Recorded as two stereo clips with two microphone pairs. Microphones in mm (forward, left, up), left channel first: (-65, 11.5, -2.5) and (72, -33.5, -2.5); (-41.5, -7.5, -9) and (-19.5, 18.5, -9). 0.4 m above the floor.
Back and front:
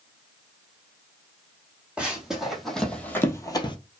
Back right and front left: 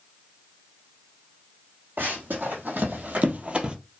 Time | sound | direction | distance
2.0 | running footsteps | 65° left | 1.2 m